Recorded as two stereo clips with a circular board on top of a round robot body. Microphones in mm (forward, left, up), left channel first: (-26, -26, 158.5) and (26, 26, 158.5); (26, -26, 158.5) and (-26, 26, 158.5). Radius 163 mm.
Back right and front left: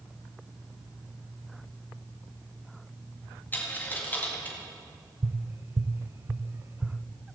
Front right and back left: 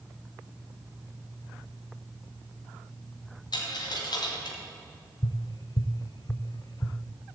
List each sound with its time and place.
3.5 s a dropped coin: 70° right, 1.9 m
5.2 s tapping: 10° right, 0.6 m